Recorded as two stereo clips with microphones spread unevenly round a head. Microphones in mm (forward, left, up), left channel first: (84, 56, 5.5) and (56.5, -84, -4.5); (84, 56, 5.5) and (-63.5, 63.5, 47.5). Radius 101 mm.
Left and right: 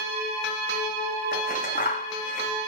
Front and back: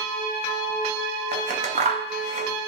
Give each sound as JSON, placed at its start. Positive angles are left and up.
{"t": 1.3, "sound": "scissors", "azimuth_deg": 135, "distance_m": 2.5}